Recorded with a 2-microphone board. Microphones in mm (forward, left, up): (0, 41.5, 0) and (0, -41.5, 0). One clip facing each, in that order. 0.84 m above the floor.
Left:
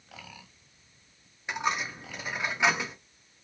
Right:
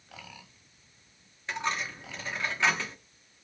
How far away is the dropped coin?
About 0.6 m.